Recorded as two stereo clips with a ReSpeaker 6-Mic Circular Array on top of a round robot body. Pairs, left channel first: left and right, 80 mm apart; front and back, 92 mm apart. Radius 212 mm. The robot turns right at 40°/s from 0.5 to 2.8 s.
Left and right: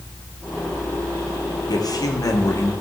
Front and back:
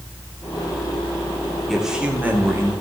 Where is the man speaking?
90° left, 2.5 m; by 2.7 s 130° left, 2.5 m.